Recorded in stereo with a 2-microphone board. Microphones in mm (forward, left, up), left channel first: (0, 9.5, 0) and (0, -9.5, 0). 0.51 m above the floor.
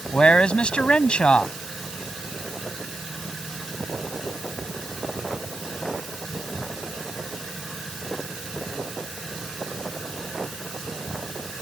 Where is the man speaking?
70° left (ahead or behind).